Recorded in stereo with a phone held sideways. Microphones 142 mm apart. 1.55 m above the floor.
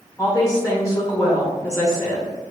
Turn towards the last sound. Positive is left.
turn(degrees=25)  # may be behind; listen again after turning